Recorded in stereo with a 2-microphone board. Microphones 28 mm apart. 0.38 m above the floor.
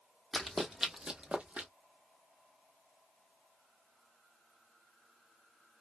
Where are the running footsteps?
10° left (ahead or behind), 0.9 m; by 1.7 s 60° right (ahead or behind), 0.9 m.